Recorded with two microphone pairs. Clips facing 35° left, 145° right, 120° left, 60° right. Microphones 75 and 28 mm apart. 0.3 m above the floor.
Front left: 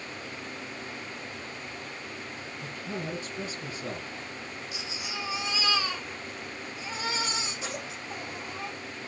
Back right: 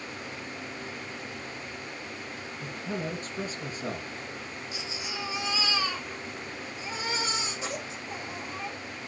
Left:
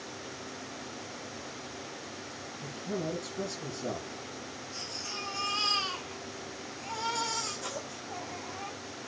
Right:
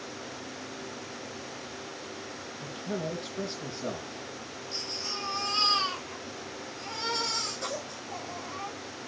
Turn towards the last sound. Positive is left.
turn(degrees=-80)